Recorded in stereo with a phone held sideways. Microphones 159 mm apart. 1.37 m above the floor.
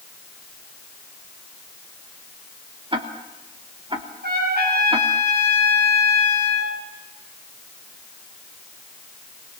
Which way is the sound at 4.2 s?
85° right.